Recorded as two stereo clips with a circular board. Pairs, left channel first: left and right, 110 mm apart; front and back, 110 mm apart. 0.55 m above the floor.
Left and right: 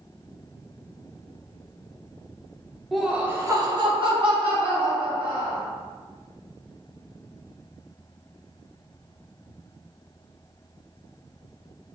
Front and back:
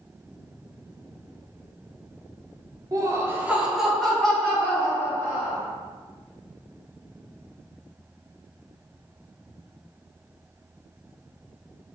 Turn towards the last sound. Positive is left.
turn(degrees=-70)